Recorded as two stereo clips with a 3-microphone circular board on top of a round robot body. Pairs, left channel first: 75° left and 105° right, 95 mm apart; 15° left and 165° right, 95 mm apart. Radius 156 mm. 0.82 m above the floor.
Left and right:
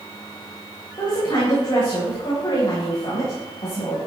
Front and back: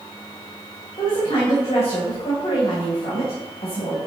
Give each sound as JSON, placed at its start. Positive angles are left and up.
{"t": 1.0, "sound": "a woman speaking", "azimuth_deg": 35, "distance_m": 4.0}